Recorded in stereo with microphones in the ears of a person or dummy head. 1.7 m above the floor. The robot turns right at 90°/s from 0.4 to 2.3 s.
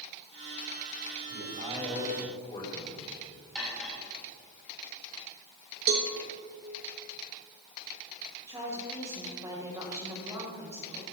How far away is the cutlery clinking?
About 6.5 m.